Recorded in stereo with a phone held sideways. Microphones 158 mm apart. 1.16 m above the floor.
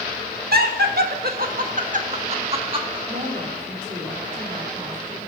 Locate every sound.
0.5 s laughter: 85° right, 1.3 m; by 3.0 s 30° right (ahead or behind), 1.7 m
3.1 s a woman speaking: 50° right (ahead or behind), 3 m